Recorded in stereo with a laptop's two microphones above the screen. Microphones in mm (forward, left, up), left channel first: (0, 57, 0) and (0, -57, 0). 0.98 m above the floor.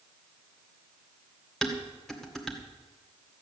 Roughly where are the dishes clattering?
Centre.